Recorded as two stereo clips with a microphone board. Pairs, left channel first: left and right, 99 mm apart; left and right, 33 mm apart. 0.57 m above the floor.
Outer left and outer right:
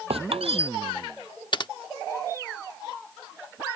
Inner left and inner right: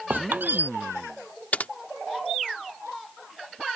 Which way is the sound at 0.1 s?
80° right.